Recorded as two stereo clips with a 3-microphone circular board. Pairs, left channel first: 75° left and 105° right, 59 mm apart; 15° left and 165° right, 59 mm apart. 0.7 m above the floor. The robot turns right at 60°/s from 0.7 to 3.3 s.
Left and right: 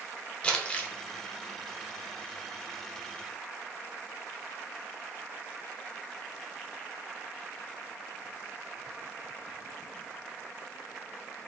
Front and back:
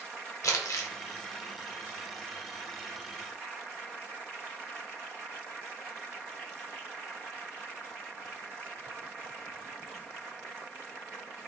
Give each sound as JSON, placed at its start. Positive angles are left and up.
{"t": 0.4, "sound": "crumpling", "azimuth_deg": 5, "distance_m": 0.6}